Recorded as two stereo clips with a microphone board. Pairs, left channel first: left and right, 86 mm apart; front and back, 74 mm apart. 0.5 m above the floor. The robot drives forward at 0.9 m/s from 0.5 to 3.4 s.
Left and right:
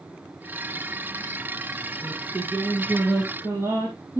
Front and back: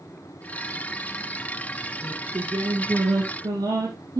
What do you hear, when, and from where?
2.0 s singing: 145° right, 6 m; by 4.2 s 150° right, 7.5 m